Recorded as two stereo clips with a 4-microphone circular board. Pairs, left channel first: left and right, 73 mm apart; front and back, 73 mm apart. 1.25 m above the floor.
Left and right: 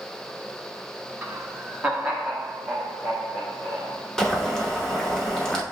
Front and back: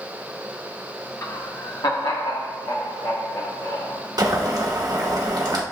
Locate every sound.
1.2 s laughter: 35° right, 0.5 m; by 4.1 s 5° left, 2.5 m
4.2 s boiling: 170° left, 0.9 m